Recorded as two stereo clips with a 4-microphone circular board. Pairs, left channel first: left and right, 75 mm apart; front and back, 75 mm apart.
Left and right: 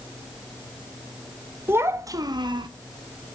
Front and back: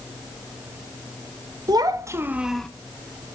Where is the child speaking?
150° right, 1.2 m; by 2.7 s 80° right, 0.8 m.